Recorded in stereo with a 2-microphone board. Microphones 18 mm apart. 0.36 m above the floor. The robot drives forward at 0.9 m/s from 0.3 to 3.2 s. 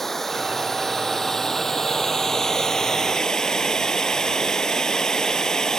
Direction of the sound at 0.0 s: 15° left (ahead or behind).